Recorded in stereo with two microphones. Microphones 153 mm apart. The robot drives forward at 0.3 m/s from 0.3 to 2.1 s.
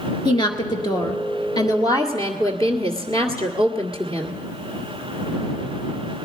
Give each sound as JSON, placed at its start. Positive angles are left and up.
{"t": 0.2, "sound": "a woman speaking", "side_deg": 30, "distance_m": 1.5}